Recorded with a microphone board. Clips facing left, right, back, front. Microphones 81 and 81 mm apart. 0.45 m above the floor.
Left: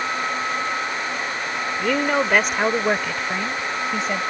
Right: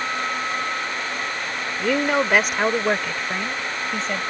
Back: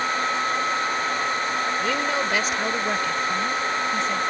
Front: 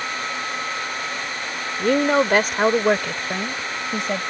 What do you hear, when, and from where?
1.8 s a woman speaking: 10° right; by 4.2 s 5° left